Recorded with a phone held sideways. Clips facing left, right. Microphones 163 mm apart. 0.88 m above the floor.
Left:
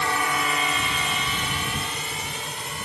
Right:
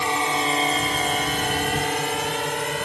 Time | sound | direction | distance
0.0 | a drone | 20° right (ahead or behind) | ?